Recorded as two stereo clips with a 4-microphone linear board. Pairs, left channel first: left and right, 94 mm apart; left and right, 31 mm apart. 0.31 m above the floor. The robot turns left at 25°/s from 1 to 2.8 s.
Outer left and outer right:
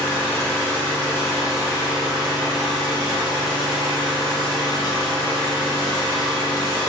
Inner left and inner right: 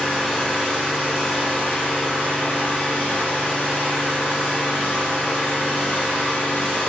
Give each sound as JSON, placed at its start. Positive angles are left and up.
{"t": 0.0, "sound": "an engine running", "azimuth_deg": 155, "distance_m": 1.0}